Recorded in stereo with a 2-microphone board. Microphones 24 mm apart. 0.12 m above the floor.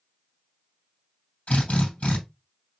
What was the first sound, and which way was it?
A drill, 65° left (ahead or behind).